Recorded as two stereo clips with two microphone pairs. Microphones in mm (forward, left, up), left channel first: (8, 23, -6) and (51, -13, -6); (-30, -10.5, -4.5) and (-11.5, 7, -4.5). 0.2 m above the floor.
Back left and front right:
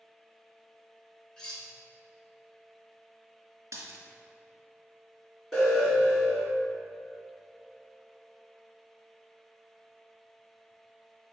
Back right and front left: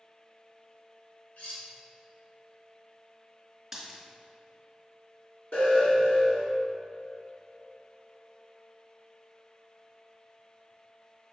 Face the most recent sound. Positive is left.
turn(degrees=-135)